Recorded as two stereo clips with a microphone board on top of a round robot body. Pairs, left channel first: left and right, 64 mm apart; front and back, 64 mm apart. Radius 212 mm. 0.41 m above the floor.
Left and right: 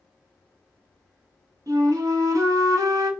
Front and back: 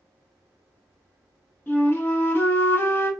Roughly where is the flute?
Ahead right.